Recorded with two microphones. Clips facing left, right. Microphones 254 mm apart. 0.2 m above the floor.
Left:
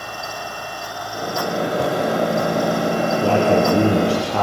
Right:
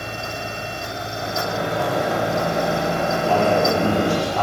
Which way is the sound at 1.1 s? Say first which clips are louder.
Left 4 dB; 40° left (ahead or behind).